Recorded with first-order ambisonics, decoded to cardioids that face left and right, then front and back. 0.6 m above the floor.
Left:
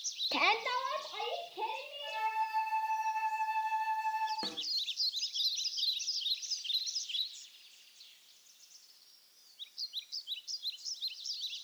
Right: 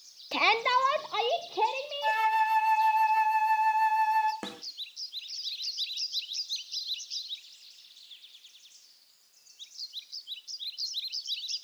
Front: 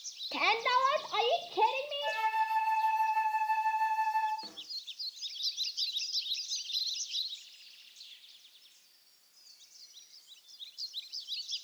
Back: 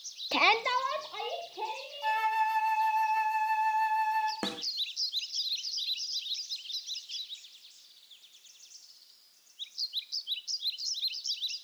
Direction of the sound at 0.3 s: 170° right.